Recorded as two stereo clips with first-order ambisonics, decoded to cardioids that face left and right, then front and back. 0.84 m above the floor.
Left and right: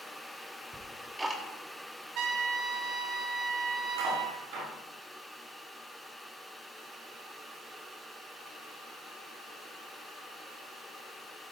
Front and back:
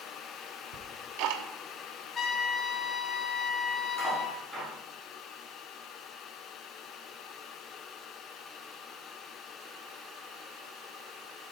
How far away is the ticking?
About 1.0 m.